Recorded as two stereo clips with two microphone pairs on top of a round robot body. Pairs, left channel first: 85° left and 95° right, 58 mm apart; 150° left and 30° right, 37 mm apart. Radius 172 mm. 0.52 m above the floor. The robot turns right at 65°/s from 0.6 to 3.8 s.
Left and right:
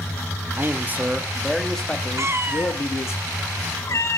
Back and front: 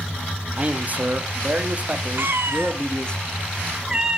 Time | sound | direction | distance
0.6 | a man speaking | 70° right | 1.3 m
2.2 | a cat meowing | 65° right | 1.2 m